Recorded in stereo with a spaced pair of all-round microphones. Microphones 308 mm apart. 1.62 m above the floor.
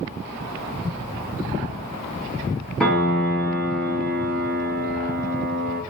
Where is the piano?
5° left (ahead or behind), 0.9 m.